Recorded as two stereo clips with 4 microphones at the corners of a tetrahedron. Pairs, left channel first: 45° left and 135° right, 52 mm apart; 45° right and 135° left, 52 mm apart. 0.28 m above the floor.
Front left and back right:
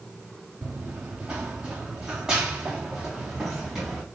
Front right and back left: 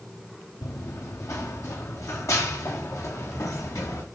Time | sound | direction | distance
0.6 | running footsteps | 70° right | 1.5 m